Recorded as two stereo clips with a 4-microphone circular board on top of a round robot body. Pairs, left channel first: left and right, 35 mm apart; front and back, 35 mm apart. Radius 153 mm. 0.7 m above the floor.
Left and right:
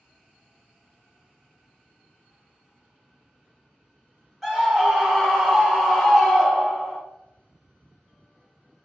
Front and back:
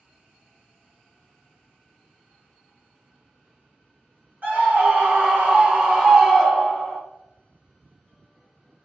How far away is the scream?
About 1.6 m.